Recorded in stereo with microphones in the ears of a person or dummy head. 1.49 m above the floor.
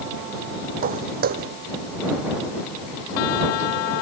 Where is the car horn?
I don't hear a car horn.